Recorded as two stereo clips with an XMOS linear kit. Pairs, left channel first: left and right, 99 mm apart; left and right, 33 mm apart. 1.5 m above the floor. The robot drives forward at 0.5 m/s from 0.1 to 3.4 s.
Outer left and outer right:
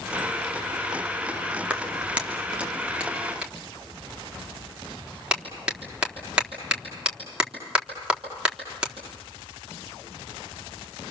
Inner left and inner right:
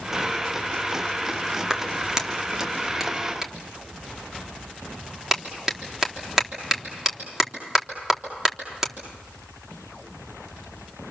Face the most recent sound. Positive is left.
turn(degrees=-10)  # may be behind; listen again after turning